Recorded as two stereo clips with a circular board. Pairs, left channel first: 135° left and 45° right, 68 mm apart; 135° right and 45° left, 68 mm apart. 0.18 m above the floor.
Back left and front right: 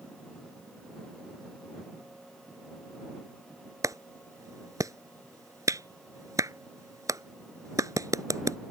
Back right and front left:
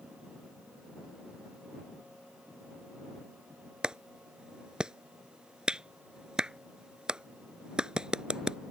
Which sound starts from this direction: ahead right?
A clap, at 3.8 s.